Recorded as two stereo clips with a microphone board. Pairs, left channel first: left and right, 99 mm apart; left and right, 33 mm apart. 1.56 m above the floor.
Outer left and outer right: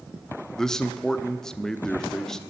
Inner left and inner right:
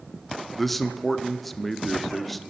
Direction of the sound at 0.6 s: 5° left (ahead or behind).